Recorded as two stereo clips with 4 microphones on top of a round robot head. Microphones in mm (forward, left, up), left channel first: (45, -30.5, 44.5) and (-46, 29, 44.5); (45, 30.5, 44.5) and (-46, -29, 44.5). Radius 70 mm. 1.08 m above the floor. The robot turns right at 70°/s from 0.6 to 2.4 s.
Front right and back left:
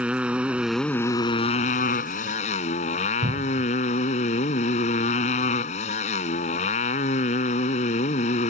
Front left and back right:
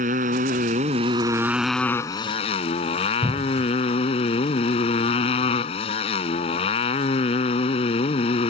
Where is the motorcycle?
135° right; by 8.5 s 5° right.